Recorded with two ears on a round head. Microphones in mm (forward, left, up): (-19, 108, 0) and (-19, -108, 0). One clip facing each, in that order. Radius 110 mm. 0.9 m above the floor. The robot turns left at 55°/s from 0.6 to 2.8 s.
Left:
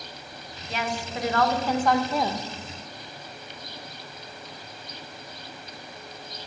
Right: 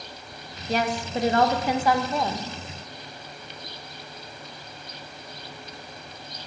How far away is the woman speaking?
About 0.7 m.